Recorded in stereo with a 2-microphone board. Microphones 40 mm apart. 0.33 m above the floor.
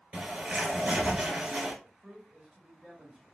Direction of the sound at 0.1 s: 25° right (ahead or behind).